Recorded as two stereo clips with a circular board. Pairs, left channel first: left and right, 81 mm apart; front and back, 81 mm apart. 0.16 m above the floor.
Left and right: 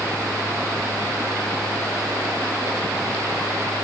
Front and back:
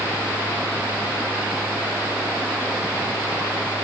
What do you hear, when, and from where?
Only background noise.